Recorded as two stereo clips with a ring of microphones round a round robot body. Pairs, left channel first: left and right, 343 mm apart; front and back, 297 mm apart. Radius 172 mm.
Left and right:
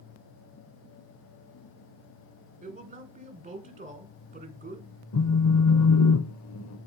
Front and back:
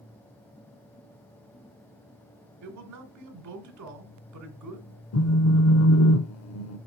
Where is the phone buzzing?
40° left, 0.7 m.